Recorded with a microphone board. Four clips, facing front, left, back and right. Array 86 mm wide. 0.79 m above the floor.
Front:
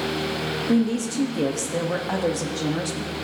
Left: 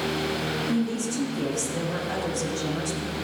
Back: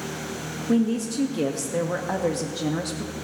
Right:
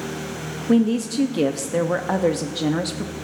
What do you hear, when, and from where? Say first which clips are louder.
0.7 s a woman speaking: right 11 dB, even; 85° right, 0.7 m